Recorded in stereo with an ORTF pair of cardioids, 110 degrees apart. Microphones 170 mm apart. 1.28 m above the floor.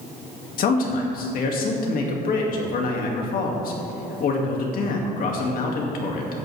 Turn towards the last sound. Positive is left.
turn(degrees=60)